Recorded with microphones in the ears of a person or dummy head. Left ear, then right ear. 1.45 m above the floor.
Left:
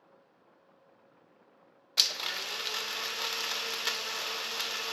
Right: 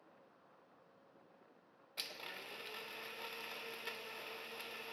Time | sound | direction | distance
2.0 | a blender | 50° left (ahead or behind) | 0.6 m